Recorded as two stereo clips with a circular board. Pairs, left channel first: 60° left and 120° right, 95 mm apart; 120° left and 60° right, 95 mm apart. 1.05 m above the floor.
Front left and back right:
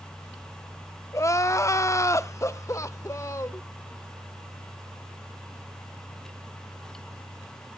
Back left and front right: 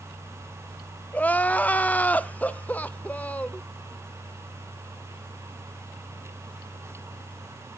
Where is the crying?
65° left, 0.5 m.